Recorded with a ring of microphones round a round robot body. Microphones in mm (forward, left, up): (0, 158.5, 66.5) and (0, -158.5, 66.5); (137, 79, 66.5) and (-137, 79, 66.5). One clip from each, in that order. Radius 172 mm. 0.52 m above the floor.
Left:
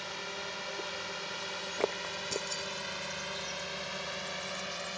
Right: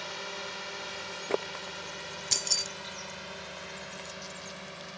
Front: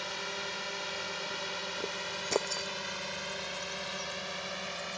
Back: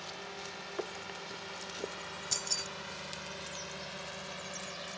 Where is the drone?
5° right; by 5.0 s 45° left.